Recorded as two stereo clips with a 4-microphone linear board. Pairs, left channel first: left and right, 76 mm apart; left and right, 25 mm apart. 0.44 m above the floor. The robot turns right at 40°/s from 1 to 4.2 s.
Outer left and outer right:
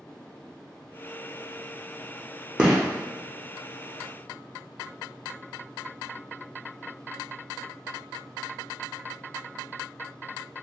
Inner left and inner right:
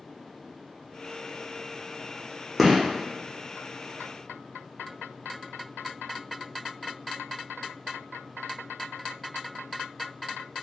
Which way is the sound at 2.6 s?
15° right (ahead or behind).